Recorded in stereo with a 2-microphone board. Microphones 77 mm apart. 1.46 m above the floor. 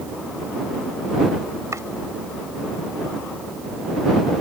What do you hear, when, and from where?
1.7 s chopping: 40° right (ahead or behind)